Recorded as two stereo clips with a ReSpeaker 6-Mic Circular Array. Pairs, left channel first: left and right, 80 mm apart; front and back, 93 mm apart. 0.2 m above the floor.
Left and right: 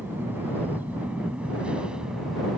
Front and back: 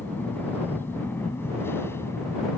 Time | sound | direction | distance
0.0 | an aircraft | 50° right | ?